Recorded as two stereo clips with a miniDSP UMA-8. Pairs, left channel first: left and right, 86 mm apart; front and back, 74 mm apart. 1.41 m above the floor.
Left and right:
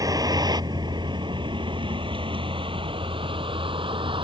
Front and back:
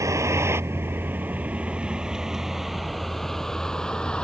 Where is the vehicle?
135° right; by 4.2 s 80° right.